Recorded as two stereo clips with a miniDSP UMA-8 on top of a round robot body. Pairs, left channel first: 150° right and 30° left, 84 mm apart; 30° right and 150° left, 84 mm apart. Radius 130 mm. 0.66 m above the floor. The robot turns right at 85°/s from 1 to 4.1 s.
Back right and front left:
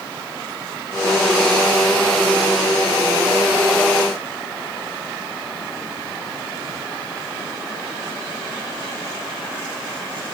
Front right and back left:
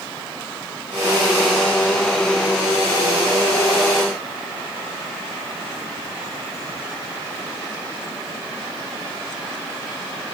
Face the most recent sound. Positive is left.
No sound to turn to.